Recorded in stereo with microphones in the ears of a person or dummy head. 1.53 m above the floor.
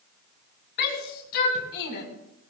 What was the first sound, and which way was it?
A shout, 50° left (ahead or behind).